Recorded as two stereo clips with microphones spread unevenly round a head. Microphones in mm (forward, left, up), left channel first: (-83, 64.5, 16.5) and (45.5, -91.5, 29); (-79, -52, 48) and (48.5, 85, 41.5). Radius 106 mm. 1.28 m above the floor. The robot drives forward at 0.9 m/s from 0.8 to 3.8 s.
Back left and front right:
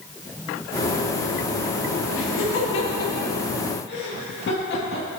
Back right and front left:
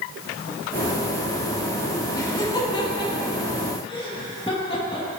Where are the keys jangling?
No keys jangling in this recording.